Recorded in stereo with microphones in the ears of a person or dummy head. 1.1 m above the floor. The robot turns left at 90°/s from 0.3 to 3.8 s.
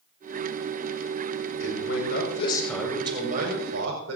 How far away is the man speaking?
About 7 m.